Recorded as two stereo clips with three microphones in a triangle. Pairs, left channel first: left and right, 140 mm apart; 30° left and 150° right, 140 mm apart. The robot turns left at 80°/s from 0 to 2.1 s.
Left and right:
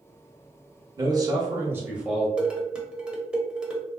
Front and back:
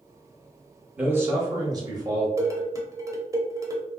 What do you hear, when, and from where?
1.0 s a man speaking: 80° right, 1.0 m; by 2.3 s 170° right, 1.0 m
2.4 s dishes clattering: 160° right, 0.6 m